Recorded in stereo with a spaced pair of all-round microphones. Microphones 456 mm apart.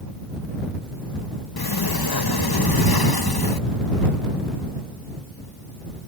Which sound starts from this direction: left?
A sliding door, at 1.6 s.